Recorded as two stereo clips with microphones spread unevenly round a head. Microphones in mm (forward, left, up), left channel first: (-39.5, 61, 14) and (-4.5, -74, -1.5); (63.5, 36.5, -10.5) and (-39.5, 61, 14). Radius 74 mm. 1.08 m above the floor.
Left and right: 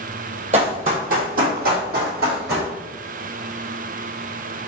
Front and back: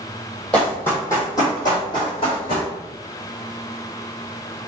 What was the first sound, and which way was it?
Running footsteps, 105° right.